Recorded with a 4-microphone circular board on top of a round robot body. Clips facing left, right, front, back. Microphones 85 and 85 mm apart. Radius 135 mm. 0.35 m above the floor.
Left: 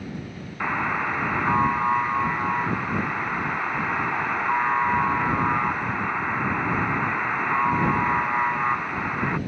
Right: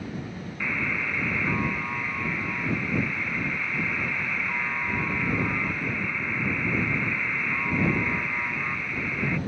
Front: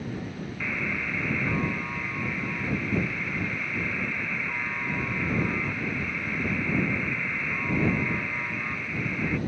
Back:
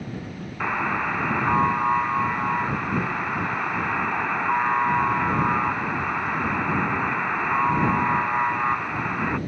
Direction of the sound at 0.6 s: 140° left.